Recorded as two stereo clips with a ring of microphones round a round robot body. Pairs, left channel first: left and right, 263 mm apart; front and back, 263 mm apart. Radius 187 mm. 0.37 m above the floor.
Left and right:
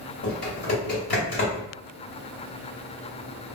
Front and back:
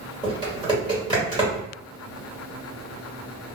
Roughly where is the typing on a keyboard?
Behind left.